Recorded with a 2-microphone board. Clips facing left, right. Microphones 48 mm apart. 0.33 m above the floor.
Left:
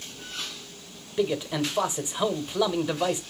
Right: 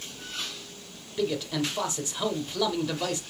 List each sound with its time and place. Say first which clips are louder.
1.2 s a man speaking: left 2 dB; 20° left (ahead or behind), 0.9 m